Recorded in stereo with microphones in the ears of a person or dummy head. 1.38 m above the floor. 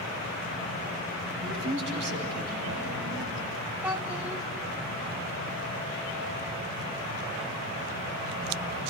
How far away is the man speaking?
About 9.5 m.